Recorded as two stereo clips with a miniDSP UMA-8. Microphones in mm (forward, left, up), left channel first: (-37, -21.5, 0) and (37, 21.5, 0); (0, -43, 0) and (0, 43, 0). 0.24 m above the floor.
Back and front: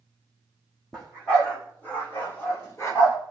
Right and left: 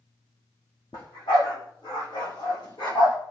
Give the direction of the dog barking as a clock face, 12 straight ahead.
2 o'clock.